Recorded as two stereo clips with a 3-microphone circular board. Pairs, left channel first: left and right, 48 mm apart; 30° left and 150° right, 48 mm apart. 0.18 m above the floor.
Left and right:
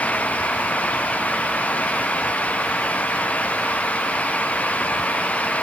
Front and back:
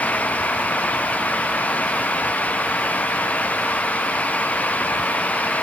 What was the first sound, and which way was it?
Only background noise.